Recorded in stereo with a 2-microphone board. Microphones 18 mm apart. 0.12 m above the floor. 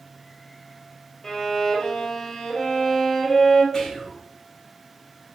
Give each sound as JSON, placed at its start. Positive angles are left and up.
{"t": 1.2, "sound": "a violin", "side_deg": 35, "distance_m": 1.4}
{"t": 3.7, "sound": "whispering", "side_deg": 20, "distance_m": 1.4}